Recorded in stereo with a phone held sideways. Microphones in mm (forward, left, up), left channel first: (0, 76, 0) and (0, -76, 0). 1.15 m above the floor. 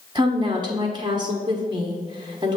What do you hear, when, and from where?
0.1 s a woman speaking: 30° right (ahead or behind), 1.0 m